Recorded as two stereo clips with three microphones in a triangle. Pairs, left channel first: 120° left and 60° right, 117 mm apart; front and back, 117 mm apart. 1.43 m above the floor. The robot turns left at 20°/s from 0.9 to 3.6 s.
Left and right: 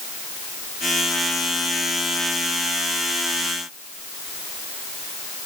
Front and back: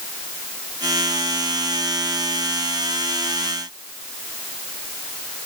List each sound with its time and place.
Only background noise.